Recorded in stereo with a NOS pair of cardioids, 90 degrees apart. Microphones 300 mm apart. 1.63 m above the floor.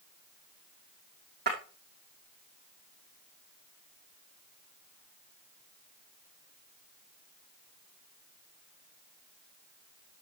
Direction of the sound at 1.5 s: 35° right.